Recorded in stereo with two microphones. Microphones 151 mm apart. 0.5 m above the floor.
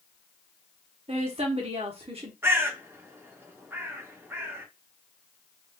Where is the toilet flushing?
I don't hear a toilet flushing.